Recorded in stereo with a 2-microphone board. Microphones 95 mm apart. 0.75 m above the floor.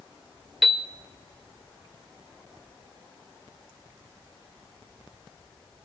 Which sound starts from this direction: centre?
A piano, at 0.6 s.